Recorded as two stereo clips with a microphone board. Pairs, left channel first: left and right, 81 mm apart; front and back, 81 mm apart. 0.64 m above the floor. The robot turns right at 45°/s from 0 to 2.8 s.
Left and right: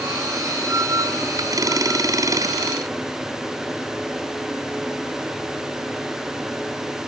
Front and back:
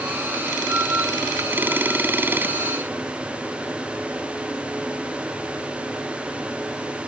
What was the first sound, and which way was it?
Only background noise.